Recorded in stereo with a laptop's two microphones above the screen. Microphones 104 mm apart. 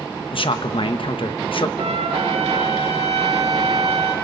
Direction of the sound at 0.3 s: 55° left (ahead or behind).